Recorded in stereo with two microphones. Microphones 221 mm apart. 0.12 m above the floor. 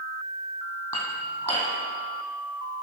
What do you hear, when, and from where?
0.9 s dishes clattering: 10° left (ahead or behind), 3 m